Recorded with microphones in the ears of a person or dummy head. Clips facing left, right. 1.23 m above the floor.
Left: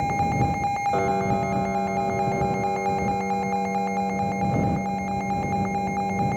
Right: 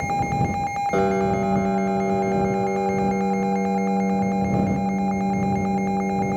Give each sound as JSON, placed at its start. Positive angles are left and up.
{"t": 0.9, "sound": "a piano", "side_deg": -30}